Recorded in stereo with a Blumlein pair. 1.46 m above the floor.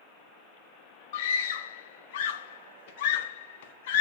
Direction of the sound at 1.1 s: 55° left.